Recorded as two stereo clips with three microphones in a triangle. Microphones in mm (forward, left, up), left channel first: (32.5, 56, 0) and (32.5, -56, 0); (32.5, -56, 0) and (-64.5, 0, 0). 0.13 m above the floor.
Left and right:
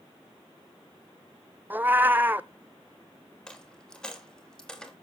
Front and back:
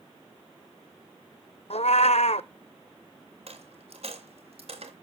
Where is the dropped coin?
175° left, 3 m.